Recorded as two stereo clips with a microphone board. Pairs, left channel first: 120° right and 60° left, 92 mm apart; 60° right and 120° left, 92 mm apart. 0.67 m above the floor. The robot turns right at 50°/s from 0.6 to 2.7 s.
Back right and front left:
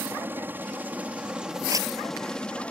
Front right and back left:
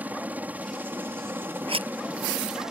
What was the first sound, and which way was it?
A helicopter, 80° left.